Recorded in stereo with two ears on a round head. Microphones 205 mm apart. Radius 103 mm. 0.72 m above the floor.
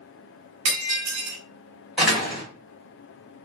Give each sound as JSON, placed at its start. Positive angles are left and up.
{"t": 0.7, "sound": "breaking glass", "side_deg": -65, "distance_m": 0.8}
{"t": 2.0, "sound": "a door slam", "side_deg": -5, "distance_m": 1.4}